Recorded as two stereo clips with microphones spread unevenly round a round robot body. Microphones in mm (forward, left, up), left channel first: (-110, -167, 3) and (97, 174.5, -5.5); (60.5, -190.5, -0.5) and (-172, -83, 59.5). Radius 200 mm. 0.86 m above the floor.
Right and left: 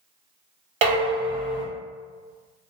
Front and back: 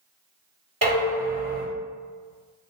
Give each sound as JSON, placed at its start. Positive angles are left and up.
{"t": 0.8, "sound": "dishes clattering", "azimuth_deg": 80, "distance_m": 1.4}